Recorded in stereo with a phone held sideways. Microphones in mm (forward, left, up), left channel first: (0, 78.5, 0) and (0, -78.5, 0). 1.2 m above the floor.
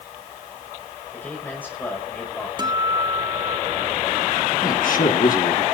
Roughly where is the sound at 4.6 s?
Left.